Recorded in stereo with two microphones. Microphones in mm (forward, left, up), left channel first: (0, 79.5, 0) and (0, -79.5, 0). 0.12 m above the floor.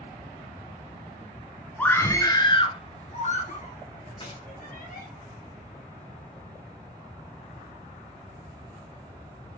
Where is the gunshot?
35° left (ahead or behind), 4.5 m.